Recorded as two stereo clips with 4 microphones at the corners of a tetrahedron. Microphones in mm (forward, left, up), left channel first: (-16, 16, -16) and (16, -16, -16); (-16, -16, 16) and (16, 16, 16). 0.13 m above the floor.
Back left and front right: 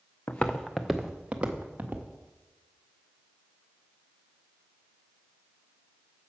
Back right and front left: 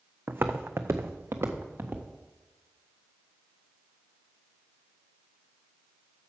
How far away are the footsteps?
About 0.7 m.